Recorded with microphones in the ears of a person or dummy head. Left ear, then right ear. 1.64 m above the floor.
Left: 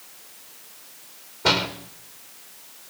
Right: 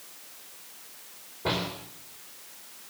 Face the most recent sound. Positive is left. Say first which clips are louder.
# left 9 dB
turn(degrees=70)  # may be behind; listen again after turning